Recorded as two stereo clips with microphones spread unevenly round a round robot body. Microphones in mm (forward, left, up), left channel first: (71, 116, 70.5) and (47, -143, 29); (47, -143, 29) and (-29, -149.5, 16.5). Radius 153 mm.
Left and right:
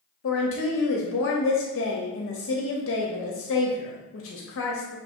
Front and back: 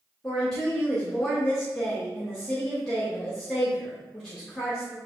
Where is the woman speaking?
95° left, 0.8 m.